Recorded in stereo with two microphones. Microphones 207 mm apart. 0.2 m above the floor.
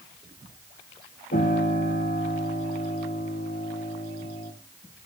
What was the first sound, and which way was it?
A piano, 70° left (ahead or behind).